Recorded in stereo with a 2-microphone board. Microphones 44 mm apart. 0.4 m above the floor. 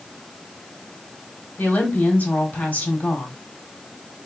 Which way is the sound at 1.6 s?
35° left (ahead or behind).